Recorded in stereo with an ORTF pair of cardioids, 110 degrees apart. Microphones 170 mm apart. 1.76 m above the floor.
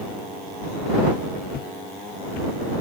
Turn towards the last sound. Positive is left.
turn(degrees=70)